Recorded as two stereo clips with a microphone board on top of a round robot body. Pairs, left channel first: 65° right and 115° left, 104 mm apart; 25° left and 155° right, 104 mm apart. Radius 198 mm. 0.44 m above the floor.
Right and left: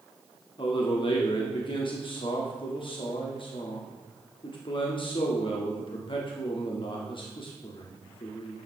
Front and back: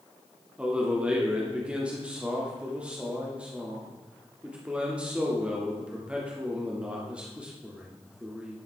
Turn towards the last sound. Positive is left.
turn(degrees=-80)